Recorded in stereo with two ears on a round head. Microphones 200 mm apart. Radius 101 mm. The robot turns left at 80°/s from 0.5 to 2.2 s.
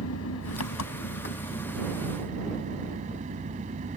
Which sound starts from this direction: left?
An engine running, at 0.0 s.